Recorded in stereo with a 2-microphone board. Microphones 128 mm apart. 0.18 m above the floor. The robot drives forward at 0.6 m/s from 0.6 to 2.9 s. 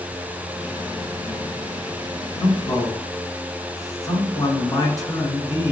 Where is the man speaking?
30° left (ahead or behind), 1.6 m; by 5.7 s 25° left (ahead or behind), 1.8 m.